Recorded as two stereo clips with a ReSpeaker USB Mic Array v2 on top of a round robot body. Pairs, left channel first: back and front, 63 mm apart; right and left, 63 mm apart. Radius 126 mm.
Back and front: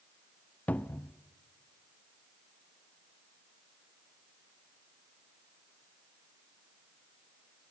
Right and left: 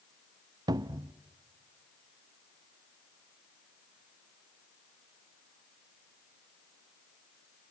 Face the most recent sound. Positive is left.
turn(degrees=115)